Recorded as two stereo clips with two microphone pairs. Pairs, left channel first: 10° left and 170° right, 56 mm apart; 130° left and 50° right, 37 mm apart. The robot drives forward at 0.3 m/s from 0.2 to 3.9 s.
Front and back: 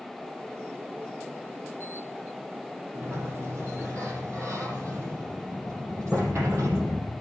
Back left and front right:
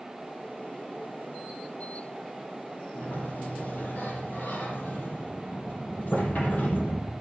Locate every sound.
3.0 s a sliding door: 150° left, 6 m